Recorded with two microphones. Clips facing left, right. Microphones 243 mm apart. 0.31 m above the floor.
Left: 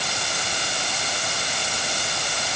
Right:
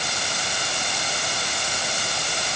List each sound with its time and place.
Only background noise.